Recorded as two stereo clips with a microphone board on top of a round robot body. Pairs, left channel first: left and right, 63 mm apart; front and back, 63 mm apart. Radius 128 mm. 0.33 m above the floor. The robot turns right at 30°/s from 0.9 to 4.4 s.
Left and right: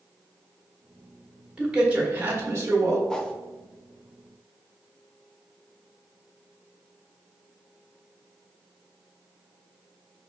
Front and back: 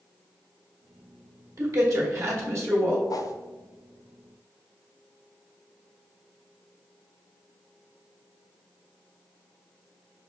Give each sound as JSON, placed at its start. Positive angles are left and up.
{"t": 1.6, "sound": "a man speaking", "azimuth_deg": -170, "distance_m": 1.5}
{"t": 3.1, "sound": "a whoosh", "azimuth_deg": 10, "distance_m": 0.6}